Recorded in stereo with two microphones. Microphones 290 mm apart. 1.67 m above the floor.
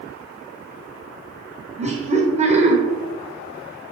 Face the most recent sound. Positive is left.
turn(degrees=-25)  # may be behind; listen again after turning